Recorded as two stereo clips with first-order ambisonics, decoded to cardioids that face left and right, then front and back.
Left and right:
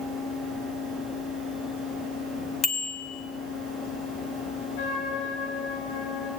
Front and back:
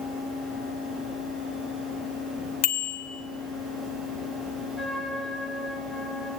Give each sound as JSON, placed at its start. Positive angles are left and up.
{"t": 2.6, "sound": "a bicycle bell", "azimuth_deg": 25, "distance_m": 2.5}
{"t": 4.8, "sound": "a trumpet", "azimuth_deg": 85, "distance_m": 4.0}